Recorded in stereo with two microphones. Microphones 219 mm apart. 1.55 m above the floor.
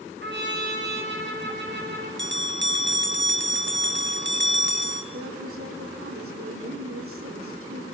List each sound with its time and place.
0.2 s a trumpet: 55° right (ahead or behind), 8 m
2.2 s a bell: 55° right (ahead or behind), 3.5 m
5.1 s a woman speaking: 85° right, 6 m